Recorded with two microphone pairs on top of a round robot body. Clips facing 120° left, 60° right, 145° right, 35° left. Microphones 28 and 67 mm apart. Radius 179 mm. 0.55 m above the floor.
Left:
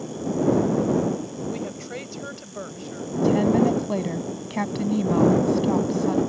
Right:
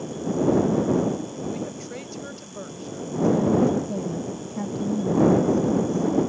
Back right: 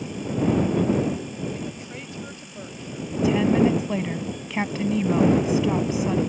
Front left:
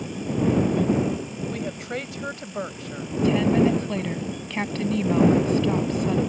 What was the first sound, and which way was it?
A woman speaking, 50° left.